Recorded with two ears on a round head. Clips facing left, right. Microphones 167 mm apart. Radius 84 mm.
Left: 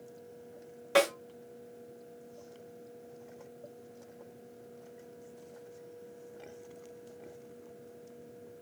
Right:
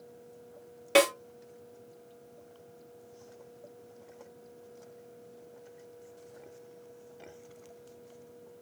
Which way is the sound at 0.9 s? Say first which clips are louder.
Right 3 dB; 30° right (ahead or behind).